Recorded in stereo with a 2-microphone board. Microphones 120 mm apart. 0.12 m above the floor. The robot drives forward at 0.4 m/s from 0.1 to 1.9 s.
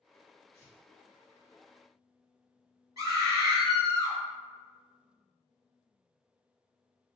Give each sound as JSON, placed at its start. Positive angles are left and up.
{"t": 0.5, "sound": "tearing paper", "side_deg": -30, "distance_m": 1.7}
{"t": 3.0, "sound": "a scream", "side_deg": -30, "distance_m": 1.4}